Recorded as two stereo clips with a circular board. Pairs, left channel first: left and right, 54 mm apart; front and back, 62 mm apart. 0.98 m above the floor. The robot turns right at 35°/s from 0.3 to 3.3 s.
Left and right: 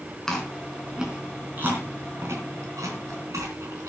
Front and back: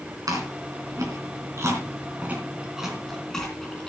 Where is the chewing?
170° left, 3 m; by 3.9 s 85° right, 3 m.